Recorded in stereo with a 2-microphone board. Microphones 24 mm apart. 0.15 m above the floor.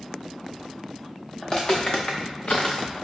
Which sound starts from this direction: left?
Footsteps, at 1.4 s.